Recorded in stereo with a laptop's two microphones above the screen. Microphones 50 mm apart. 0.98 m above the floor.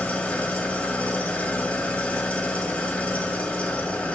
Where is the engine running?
25° left (ahead or behind), 2.5 m.